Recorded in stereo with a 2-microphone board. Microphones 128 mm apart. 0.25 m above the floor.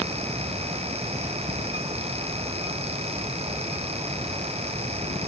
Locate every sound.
Only background noise.